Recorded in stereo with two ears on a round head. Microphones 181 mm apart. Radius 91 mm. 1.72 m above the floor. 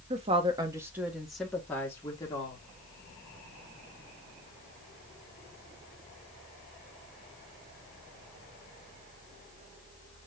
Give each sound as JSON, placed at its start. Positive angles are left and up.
{"t": 0.1, "sound": "a woman speaking", "side_deg": -30, "distance_m": 1.1}